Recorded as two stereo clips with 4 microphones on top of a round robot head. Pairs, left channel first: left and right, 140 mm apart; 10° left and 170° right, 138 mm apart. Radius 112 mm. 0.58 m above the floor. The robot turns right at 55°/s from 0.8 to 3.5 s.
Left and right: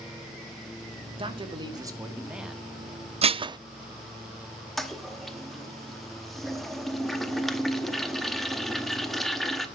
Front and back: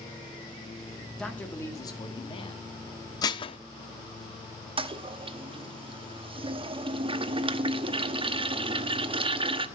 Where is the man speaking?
75° right, 1.5 m; by 2.6 s 5° left, 1.5 m.